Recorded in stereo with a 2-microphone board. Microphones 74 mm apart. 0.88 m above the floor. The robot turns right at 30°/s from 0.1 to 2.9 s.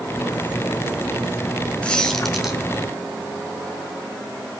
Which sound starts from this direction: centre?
A squeak, at 1.8 s.